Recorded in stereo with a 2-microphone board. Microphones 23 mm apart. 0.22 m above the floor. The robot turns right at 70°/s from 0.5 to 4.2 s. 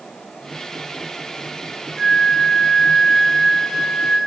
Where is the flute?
60° left, 1.4 m; by 4.2 s 145° right, 1.4 m.